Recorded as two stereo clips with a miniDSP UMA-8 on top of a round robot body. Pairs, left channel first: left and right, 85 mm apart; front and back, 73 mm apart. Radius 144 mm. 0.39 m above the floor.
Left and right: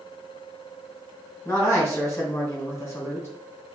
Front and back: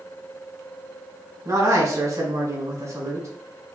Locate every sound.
1.4 s a man speaking: 145° left, 2.5 m